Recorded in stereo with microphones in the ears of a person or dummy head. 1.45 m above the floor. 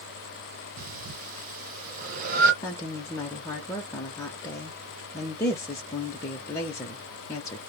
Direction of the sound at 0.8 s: 50° right (ahead or behind).